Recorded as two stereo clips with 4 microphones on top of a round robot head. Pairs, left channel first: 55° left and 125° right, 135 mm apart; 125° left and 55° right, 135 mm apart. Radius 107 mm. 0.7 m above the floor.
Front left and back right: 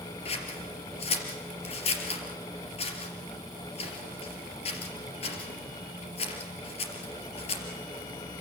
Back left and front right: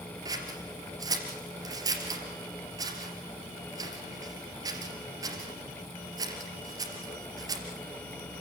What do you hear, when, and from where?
0.2 s scissors: 10° left, 3 m